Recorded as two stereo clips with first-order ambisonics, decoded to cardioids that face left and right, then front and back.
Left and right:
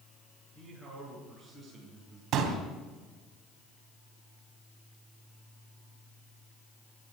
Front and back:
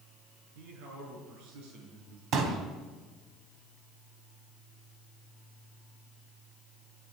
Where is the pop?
135° right, 3 m.